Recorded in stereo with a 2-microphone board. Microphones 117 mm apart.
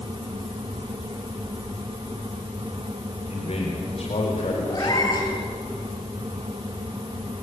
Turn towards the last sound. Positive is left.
turn(degrees=30)  # may be behind; listen again after turning